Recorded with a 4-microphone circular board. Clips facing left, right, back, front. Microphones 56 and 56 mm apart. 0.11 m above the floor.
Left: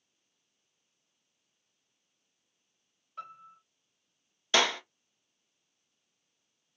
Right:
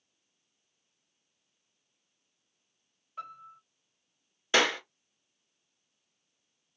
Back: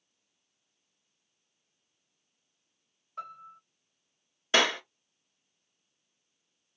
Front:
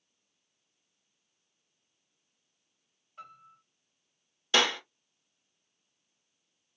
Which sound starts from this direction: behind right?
A clap, at 4.5 s.